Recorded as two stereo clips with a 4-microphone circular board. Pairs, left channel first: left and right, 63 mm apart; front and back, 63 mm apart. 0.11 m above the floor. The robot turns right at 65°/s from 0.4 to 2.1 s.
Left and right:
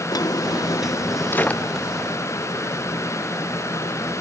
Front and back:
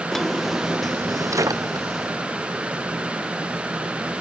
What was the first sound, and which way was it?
A drawer, 85° left.